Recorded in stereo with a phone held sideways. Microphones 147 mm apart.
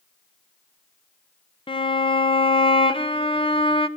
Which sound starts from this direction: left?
A violin, at 1.7 s.